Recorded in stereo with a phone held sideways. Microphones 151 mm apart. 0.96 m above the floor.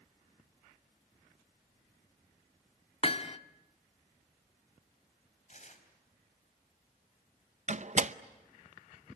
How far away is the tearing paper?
About 4 m.